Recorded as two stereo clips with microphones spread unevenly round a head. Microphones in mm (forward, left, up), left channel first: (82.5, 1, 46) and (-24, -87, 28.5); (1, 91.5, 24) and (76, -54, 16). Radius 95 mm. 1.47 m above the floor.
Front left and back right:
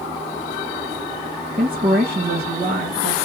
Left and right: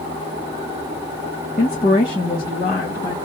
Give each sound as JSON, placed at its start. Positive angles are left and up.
{"t": 1.6, "sound": "a woman speaking", "azimuth_deg": 175, "distance_m": 1.1}